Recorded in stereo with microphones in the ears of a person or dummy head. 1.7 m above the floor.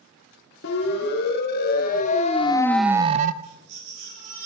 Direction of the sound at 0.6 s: 65° left (ahead or behind).